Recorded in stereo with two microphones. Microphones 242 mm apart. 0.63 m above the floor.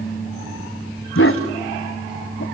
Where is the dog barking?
65° left (ahead or behind), 1.1 m.